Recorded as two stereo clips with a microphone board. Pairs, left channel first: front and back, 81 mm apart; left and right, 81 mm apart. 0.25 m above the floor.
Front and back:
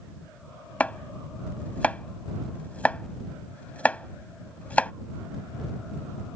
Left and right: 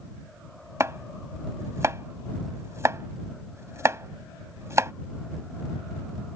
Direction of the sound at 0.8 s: 65° right.